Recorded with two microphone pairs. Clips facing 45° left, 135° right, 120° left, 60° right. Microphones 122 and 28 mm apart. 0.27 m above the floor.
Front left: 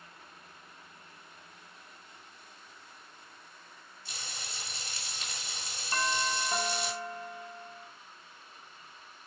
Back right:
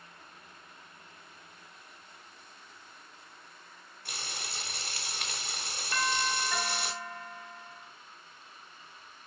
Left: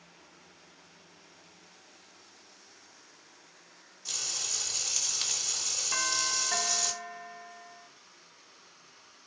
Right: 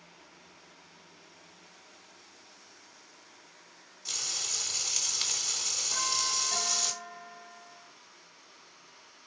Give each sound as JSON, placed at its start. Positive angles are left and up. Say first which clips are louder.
{"t": 4.0, "sound": "frying", "louder": "back right 3 dB, right 1 dB", "azimuth_deg": -130, "distance_m": 3.0}
{"t": 5.9, "sound": "a doorbell", "louder": "even, left 1 dB", "azimuth_deg": 95, "distance_m": 2.5}